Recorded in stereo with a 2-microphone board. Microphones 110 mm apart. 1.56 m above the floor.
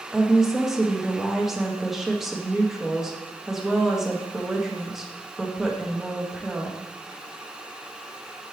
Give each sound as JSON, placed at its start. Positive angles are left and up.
{"t": 0.1, "sound": "a woman speaking", "side_deg": -5, "distance_m": 1.0}